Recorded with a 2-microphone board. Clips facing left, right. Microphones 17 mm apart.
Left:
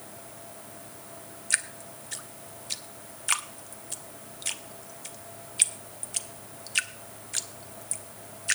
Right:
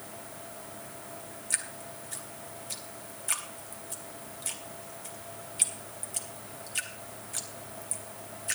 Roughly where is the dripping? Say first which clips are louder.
Left 6 dB; left.